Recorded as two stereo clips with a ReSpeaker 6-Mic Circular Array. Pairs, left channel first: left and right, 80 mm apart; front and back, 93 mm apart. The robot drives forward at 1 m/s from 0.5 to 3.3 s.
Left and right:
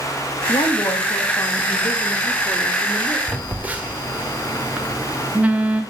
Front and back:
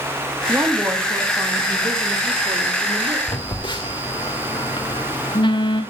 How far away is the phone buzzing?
About 1.8 m.